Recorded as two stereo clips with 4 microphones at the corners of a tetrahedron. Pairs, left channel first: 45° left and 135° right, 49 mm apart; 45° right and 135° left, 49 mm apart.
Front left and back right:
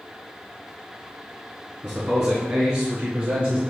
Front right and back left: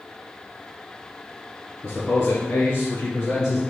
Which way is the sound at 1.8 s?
100° right.